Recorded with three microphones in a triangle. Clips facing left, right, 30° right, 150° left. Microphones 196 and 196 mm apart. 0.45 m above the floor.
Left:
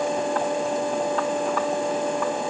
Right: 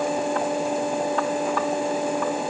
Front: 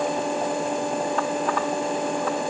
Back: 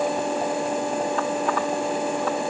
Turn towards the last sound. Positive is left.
No sound to turn to.